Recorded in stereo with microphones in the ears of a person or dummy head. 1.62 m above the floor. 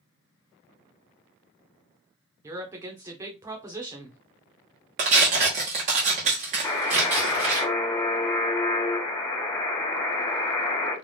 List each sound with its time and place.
2.4 s a woman speaking: 20° right (ahead or behind), 0.9 m
5.0 s tearing paper: 40° right (ahead or behind), 1.0 m
6.6 s a buzzer: 15° left (ahead or behind), 1.2 m